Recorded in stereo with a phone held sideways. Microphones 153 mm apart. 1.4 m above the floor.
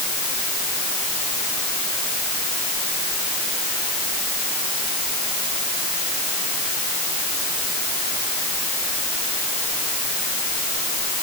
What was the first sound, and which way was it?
Only background noise.